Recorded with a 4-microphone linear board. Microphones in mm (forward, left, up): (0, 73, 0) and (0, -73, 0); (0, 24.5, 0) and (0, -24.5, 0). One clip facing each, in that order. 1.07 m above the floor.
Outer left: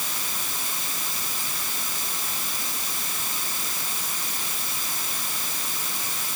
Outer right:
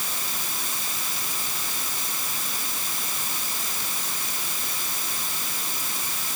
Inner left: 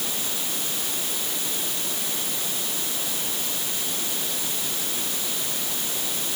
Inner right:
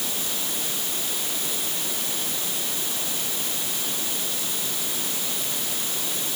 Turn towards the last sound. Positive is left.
No sound to turn to.